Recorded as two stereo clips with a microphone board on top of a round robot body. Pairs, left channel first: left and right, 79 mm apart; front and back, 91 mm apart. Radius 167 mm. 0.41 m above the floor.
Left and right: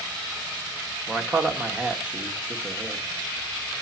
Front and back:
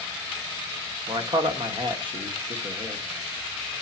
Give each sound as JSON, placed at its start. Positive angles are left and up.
{"t": 1.1, "sound": "a man speaking", "azimuth_deg": -165, "distance_m": 1.2}